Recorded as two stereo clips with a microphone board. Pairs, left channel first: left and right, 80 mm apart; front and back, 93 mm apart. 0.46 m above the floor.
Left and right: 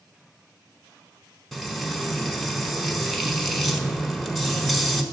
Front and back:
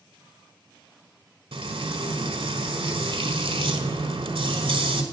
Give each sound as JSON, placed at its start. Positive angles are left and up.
{"t": 1.5, "sound": "frying", "azimuth_deg": 180, "distance_m": 1.0}